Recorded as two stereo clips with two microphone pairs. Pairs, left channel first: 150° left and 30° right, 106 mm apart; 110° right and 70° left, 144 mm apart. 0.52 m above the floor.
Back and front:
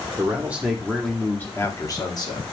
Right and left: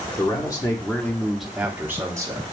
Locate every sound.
0.2 s a man speaking: 80° right, 0.9 m; by 2.5 s 125° left, 1.1 m